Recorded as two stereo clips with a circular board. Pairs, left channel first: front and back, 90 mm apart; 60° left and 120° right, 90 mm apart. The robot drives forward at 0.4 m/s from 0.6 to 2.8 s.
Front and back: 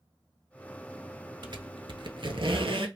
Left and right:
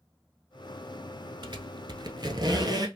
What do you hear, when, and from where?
1.4 s a squeak: 150° right, 0.7 m; by 2.9 s 160° right, 1.2 m